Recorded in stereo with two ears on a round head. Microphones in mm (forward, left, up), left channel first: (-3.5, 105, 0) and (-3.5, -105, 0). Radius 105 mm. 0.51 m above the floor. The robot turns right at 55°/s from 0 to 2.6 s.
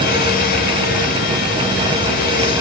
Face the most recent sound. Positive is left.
No sound to turn to.